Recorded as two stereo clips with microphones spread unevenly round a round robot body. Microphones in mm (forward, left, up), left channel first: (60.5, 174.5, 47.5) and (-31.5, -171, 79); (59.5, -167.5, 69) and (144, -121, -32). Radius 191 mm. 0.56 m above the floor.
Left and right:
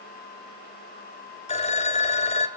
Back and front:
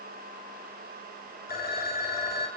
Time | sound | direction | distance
1.5 | a phone ringing | 145° left | 1.9 m